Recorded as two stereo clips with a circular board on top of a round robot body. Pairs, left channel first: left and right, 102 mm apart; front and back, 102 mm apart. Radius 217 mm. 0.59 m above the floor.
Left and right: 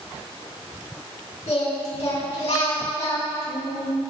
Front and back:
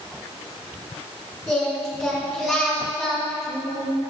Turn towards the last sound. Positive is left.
turn(degrees=85)